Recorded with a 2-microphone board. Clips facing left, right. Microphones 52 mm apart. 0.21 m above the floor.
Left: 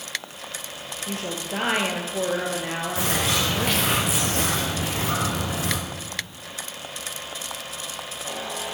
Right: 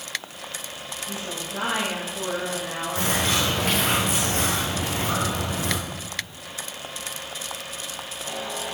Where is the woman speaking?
55° left (ahead or behind), 3.5 m.